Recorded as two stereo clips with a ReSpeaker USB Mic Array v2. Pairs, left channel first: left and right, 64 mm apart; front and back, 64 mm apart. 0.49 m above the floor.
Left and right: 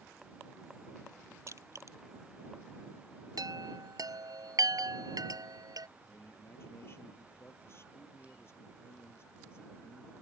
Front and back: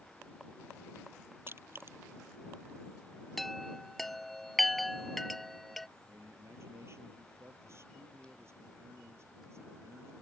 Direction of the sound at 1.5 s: 130° right.